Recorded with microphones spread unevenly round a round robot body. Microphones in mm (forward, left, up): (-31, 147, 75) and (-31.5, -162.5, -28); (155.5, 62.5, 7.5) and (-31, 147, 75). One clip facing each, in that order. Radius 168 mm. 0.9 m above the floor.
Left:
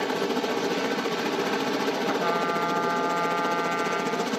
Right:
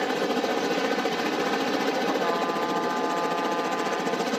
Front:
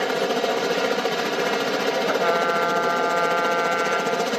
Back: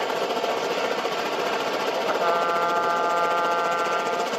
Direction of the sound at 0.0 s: 10° left.